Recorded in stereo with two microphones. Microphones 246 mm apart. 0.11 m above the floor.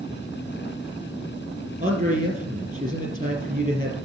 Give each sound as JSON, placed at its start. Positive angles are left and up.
{"t": 1.8, "sound": "a man speaking", "side_deg": -35, "distance_m": 3.5}